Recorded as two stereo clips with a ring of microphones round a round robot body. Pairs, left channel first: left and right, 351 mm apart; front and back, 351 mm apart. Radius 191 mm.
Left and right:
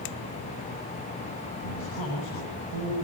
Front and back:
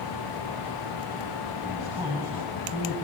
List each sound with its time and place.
1.6 s a man speaking: 90° left, 9.5 m